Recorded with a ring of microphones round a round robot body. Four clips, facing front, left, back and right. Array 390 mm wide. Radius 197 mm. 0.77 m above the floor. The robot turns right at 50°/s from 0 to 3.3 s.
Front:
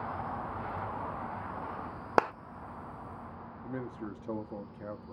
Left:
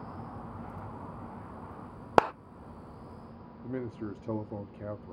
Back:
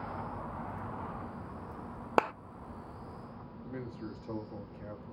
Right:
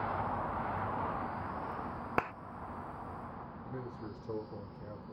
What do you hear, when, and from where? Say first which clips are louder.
2.2 s a clap: left 12 dB, front 1 dB; 85° left, 0.5 m; by 2.3 s 90° left, 0.5 m
3.6 s a man speaking: left 9 dB, front 3 dB; 70° left, 1.4 m